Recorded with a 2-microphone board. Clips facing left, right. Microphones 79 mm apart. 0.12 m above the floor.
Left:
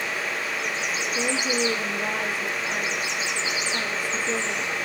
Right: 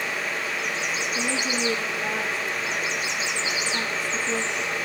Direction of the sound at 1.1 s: 5° left (ahead or behind).